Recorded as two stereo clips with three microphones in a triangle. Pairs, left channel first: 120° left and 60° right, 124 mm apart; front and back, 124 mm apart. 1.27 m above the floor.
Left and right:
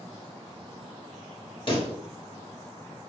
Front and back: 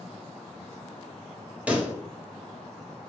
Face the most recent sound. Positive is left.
turn(degrees=105)